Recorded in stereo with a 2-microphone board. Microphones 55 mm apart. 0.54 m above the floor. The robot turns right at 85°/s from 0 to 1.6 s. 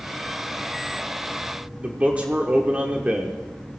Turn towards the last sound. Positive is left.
turn(degrees=-25)  # may be behind; listen again after turning